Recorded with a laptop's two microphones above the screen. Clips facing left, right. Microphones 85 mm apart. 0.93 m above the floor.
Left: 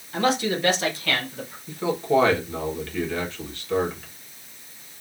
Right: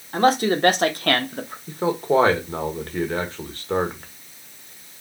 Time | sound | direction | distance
0.1 | a man speaking | 40° right (ahead or behind) | 1.5 m
1.7 | a man speaking | 40° right (ahead or behind) | 1.3 m